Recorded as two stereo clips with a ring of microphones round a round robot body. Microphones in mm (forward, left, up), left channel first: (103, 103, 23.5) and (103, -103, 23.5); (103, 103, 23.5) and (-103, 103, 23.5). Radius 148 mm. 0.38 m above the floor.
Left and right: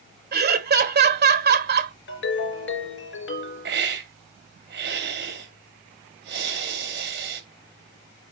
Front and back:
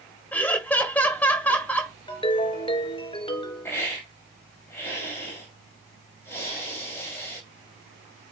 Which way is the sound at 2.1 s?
65° left.